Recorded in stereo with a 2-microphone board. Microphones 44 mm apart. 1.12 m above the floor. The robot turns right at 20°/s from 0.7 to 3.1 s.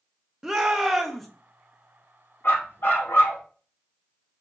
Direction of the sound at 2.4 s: 65° left (ahead or behind).